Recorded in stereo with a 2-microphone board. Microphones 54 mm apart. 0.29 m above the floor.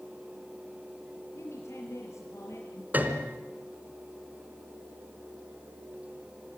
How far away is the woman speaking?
About 5 m.